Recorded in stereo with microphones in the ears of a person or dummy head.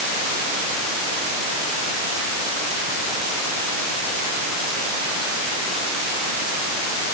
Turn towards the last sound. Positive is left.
No sound to turn to.